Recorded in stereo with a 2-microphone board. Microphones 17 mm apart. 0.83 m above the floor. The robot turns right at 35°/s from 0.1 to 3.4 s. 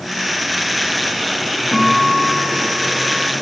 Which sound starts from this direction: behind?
A guitar, at 1.7 s.